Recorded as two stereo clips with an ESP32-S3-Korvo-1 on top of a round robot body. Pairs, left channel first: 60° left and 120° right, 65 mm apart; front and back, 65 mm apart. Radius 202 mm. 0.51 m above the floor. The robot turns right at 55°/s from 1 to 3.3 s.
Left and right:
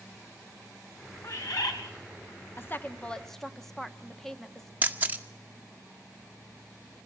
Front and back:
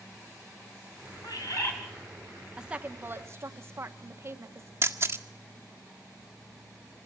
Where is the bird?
25° left, 3 m; by 1.8 s 50° left, 3 m.